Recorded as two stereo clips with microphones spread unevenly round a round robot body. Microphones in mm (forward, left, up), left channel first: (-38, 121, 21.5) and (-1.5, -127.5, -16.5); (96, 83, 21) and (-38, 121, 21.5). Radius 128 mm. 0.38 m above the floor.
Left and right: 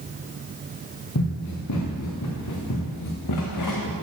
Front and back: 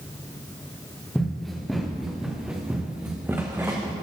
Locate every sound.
1.1 s running footsteps: 70° left, 3 m; by 3.9 s 95° left, 2 m